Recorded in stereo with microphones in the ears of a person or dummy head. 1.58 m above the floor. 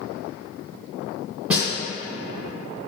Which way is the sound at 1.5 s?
10° right (ahead or behind).